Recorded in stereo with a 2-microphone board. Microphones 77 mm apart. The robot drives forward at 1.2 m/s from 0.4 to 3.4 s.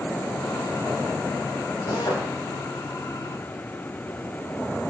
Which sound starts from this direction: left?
A drill, at 1.9 s.